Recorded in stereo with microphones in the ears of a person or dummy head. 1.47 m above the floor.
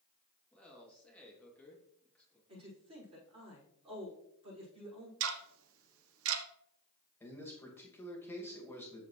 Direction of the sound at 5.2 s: 75° right (ahead or behind).